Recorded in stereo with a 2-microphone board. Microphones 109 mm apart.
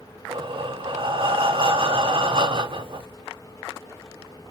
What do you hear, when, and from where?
0.3 s breathing: 50° right (ahead or behind), 0.6 m